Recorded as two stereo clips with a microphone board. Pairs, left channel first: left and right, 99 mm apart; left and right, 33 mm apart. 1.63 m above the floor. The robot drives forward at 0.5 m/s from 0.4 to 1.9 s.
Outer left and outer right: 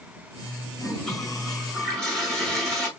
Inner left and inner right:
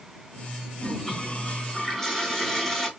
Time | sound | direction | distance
0.8 | a toilet flushing | 5° left (ahead or behind) | 1.6 m